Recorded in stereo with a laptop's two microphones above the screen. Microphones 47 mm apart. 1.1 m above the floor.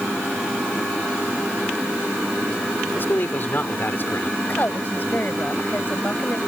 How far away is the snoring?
I don't hear snoring.